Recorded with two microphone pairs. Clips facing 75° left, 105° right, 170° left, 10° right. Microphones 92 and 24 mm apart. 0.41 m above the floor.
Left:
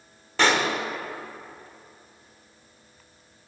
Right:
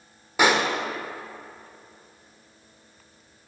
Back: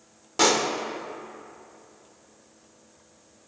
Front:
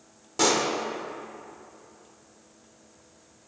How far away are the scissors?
I don't hear scissors.